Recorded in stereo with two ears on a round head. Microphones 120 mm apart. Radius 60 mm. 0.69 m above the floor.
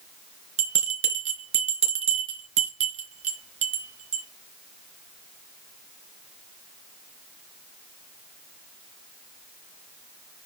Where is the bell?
55° right (ahead or behind), 3.5 m.